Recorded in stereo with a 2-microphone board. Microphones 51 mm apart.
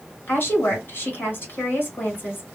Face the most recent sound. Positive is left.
turn(degrees=45)  # may be behind; listen again after turning